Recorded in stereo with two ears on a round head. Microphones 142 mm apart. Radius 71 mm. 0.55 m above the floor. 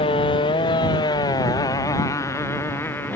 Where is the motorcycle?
30° left (ahead or behind); by 3.1 s 10° left (ahead or behind).